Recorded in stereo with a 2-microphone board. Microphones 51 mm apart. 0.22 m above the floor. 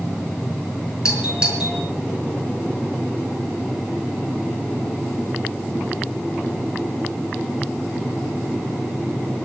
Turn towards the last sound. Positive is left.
turn(degrees=-20)  # may be behind; listen again after turning